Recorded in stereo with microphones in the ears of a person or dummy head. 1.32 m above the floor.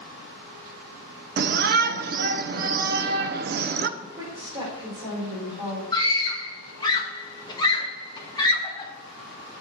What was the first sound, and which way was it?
A shout, 50° right (ahead or behind).